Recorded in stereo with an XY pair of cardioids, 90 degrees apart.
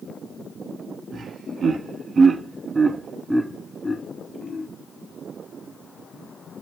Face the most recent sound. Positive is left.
turn(degrees=45)